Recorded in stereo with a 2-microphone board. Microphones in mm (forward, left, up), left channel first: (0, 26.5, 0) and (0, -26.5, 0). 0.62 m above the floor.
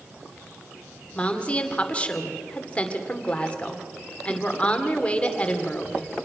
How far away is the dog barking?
No dog barking in this recording.